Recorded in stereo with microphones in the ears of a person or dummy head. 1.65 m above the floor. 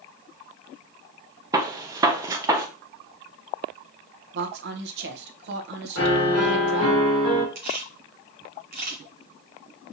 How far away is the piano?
About 2.5 m.